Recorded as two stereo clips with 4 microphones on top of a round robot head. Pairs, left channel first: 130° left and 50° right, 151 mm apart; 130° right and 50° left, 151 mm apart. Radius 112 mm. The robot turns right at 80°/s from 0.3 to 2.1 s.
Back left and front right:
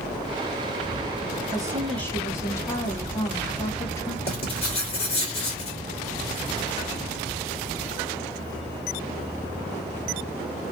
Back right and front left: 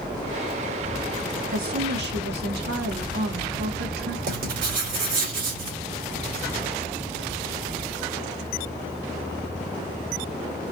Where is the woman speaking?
10° left, 1.1 m; by 4.2 s 60° left, 1.1 m.